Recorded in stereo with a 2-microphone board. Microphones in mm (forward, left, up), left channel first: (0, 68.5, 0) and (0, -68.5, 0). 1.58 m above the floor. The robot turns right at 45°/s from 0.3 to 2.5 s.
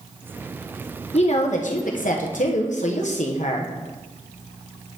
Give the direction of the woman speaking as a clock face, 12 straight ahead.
10 o'clock.